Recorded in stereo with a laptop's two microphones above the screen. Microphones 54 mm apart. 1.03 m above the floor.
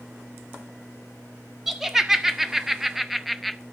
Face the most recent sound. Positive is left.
turn(degrees=0)  # may be behind; listen again after turning